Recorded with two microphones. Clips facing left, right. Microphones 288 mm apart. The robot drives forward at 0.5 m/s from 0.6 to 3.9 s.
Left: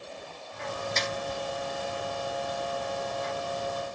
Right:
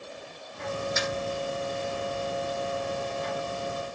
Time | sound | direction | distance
1.0 | a snare drum | 10° right (ahead or behind) | 1.1 m